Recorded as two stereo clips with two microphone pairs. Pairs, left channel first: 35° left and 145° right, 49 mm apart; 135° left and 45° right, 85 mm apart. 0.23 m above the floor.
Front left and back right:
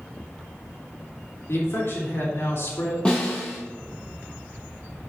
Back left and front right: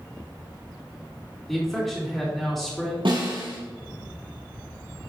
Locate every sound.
1.5 s a man speaking: 45° left, 3 m
3.0 s a snare drum: 35° right, 3.5 m